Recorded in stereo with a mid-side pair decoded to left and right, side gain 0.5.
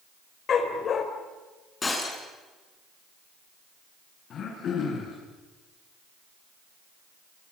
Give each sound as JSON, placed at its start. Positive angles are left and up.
{"t": 0.5, "sound": "a dog barking", "azimuth_deg": 50, "distance_m": 3.5}
{"t": 1.8, "sound": "breaking glass", "azimuth_deg": 30, "distance_m": 7.0}
{"t": 4.3, "sound": "throat clearing", "azimuth_deg": 55, "distance_m": 8.5}